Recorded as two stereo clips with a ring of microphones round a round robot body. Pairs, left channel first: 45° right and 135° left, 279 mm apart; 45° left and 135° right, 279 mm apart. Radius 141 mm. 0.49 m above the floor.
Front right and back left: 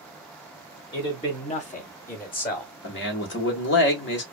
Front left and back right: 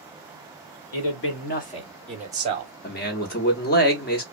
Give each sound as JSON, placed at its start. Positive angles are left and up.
{"t": 0.9, "sound": "a man speaking", "azimuth_deg": 25, "distance_m": 1.6}
{"t": 2.8, "sound": "a man speaking", "azimuth_deg": -5, "distance_m": 1.1}